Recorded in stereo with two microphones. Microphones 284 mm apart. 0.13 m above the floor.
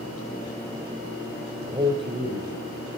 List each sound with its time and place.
1.7 s a man speaking: 15° right (ahead or behind), 5 m